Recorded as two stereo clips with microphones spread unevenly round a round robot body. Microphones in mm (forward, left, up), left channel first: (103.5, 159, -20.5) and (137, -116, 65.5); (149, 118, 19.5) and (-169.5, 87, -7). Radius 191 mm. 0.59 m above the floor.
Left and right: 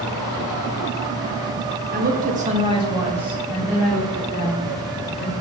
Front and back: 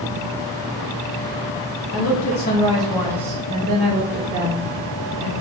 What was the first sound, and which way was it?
A woman speaking, 15° right.